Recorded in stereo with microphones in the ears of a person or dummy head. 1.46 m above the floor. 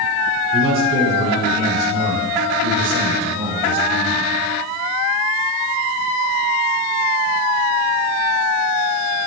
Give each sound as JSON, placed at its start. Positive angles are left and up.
{"t": 0.5, "sound": "a man speaking", "side_deg": -40, "distance_m": 3.5}